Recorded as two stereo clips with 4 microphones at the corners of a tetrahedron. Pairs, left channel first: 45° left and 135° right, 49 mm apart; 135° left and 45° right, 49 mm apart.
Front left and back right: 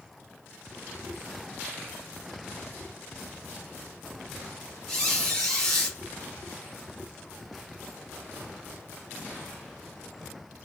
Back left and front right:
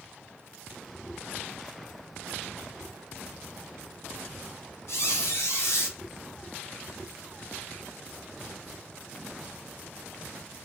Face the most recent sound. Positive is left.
turn(degrees=125)